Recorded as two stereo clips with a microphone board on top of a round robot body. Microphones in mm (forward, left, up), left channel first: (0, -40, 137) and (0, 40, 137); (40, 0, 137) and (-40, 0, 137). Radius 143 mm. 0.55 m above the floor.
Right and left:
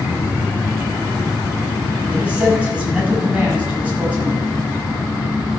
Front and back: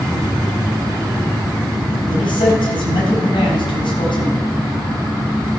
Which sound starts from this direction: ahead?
A man speaking, at 2.1 s.